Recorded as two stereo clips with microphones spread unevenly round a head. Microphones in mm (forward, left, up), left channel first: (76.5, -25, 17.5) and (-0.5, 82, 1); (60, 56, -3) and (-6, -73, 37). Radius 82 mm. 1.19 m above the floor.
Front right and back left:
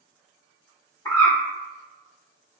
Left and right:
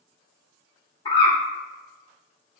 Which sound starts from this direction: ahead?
A bird, at 1.1 s.